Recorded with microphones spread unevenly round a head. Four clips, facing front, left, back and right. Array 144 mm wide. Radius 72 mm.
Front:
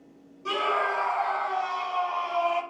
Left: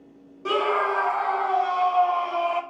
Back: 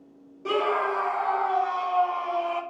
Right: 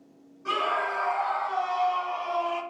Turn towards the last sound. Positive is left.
turn(degrees=90)